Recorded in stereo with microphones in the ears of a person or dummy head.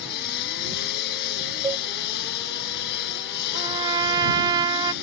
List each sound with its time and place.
0.0 s a lawn mower: 60° left (ahead or behind)
1.6 s a cowbell: 15° right (ahead or behind)
3.5 s a trumpet: 20° right (ahead or behind)